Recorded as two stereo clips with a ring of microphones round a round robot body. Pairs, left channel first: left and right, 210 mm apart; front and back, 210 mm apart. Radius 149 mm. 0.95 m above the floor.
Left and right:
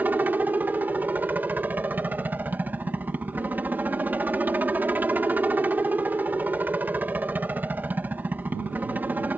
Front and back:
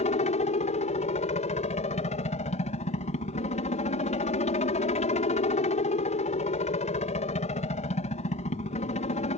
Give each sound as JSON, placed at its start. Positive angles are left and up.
{"t": 0.0, "sound": "a helicopter", "azimuth_deg": -15}